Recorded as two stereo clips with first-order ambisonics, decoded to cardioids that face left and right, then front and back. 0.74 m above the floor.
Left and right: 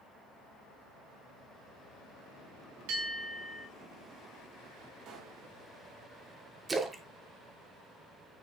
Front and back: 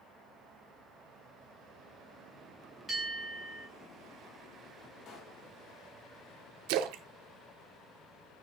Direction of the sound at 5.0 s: 55° right.